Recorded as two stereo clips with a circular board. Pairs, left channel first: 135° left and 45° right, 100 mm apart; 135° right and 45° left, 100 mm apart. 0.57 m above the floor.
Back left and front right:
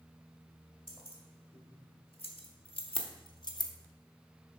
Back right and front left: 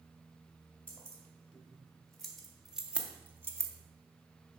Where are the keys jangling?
150° left, 1.8 m; by 3.7 s 95° left, 0.7 m.